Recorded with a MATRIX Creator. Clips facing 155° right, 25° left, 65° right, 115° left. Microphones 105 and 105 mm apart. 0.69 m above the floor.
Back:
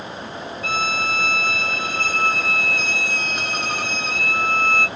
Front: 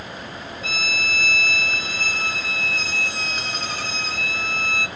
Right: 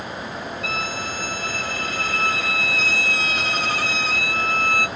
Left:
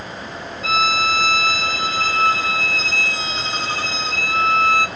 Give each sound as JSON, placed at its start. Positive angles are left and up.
{"t": 0.6, "sound": "a violin", "azimuth_deg": 175, "distance_m": 0.6}